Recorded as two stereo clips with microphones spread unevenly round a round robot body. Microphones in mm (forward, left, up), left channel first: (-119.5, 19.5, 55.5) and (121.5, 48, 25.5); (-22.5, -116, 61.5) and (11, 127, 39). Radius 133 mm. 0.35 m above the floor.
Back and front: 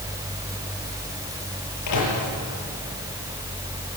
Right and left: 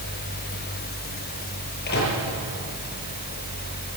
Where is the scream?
No scream in this recording.